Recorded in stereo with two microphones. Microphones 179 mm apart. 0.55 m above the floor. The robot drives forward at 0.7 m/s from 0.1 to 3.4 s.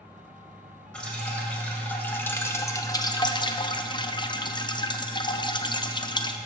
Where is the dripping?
5° left (ahead or behind), 1.8 m; by 6.4 s 25° left (ahead or behind), 0.5 m.